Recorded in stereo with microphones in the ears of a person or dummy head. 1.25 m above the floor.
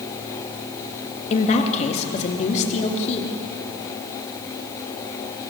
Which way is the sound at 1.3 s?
40° left (ahead or behind).